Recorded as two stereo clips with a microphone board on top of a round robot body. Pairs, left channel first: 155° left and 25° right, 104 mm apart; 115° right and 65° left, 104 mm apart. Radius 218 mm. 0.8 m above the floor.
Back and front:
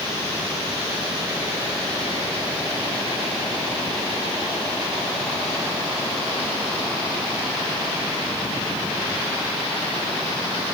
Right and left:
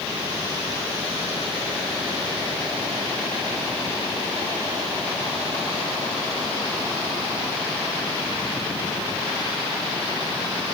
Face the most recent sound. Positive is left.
No sound to turn to.